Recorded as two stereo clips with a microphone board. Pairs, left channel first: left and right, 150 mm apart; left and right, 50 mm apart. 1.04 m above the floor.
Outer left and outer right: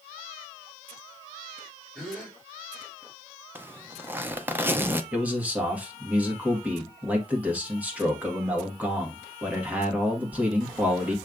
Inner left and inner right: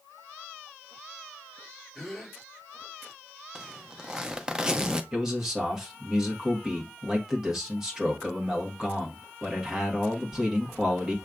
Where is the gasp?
5° left (ahead or behind), 3 m.